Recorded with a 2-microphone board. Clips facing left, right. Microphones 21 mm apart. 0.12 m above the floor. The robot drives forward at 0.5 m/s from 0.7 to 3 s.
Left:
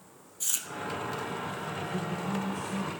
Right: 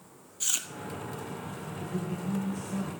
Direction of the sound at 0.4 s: 25° right (ahead or behind).